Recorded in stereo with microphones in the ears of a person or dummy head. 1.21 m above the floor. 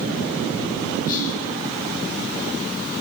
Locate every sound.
1.1 s whispering: 55° left (ahead or behind), 6.5 m